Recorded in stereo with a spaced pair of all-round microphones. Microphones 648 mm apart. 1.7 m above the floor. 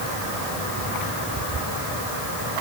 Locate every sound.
Only background noise.